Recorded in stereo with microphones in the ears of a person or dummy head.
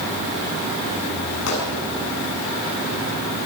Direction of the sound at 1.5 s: 85° left.